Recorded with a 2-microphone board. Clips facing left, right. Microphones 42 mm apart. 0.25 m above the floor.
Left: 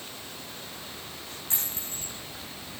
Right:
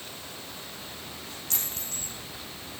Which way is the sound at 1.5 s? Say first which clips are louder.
Even; 20° left (ahead or behind).